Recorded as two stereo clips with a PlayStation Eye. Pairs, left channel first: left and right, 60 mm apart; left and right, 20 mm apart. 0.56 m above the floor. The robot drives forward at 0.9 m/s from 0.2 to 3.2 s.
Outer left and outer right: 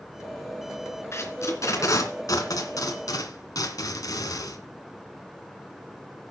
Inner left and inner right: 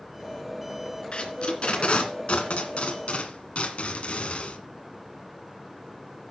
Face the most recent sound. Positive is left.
turn(degrees=85)